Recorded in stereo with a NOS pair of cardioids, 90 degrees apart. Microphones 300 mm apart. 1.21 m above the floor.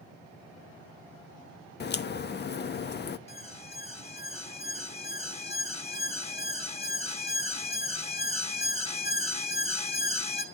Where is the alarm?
20° left, 2.5 m.